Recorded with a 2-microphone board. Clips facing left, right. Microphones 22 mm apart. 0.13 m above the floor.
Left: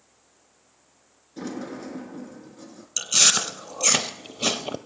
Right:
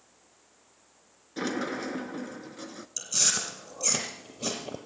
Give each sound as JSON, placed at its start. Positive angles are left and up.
{"t": 1.4, "sound": "a sliding door", "side_deg": -45, "distance_m": 0.7}
{"t": 3.0, "sound": "chewing", "side_deg": 60, "distance_m": 0.8}